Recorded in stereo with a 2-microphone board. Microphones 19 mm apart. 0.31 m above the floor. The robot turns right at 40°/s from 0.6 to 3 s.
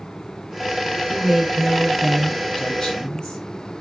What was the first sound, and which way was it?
A woman speaking, 25° right.